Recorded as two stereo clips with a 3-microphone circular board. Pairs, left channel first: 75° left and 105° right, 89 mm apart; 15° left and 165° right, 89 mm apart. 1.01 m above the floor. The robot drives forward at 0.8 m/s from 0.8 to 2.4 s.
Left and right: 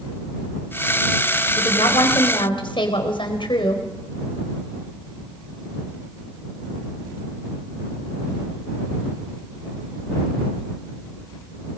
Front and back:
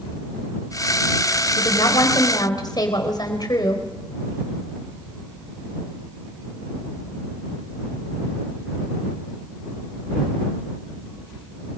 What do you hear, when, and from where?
1.6 s a woman speaking: 50° left, 4.5 m; by 3.8 s 55° left, 4.5 m